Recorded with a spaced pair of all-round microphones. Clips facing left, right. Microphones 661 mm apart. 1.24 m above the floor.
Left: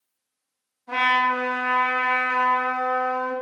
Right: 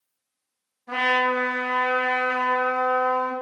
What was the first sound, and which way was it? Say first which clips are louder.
A trumpet: right 4 dB; 40° right (ahead or behind).